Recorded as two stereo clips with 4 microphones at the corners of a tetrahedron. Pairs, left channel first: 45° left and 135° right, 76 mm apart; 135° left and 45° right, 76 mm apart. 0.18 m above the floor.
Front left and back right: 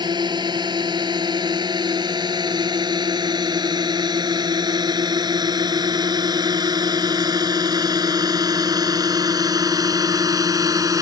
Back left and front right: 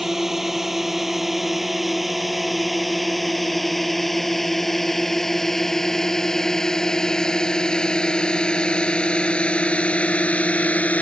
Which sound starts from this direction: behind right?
A drone, at 0.0 s.